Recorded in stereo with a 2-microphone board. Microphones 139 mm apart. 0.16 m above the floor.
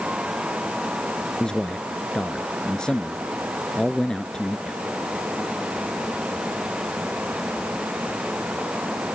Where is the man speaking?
5° left (ahead or behind).